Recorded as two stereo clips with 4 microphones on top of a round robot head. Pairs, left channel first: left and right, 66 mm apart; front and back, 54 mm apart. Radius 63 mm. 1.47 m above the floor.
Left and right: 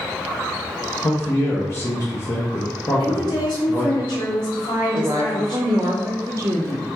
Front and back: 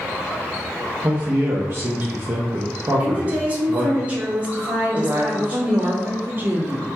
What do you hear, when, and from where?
1.0 s a man speaking: 135° left, 0.6 m
3.0 s a woman speaking: 115° left, 0.8 m
4.9 s a woman speaking: 130° right, 0.5 m